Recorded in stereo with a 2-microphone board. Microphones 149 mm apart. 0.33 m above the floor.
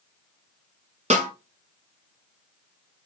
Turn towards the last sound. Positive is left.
turn(degrees=-50)  # may be behind; listen again after turning